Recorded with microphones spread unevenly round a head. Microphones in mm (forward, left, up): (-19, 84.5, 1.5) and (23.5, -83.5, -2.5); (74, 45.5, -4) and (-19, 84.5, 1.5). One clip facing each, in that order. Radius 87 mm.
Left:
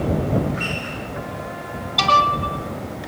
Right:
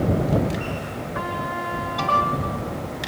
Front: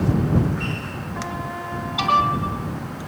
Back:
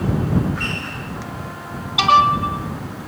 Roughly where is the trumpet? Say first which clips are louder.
Right 2 dB, front 2 dB; ahead right.